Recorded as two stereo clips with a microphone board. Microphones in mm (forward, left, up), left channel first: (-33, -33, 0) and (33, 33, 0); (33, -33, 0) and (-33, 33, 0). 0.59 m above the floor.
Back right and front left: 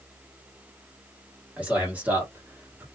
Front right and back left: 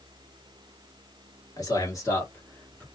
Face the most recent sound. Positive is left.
turn(degrees=15)